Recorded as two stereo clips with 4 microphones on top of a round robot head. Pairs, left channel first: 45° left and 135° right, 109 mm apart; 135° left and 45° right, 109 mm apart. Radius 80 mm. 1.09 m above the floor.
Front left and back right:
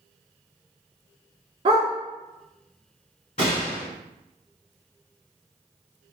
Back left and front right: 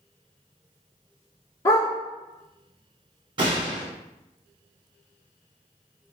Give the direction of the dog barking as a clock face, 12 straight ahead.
6 o'clock.